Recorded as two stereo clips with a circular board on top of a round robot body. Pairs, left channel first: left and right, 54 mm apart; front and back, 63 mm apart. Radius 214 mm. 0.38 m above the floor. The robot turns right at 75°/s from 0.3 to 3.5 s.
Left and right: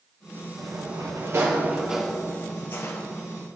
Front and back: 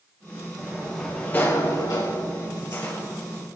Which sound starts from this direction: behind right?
A sliding door, at 0.6 s.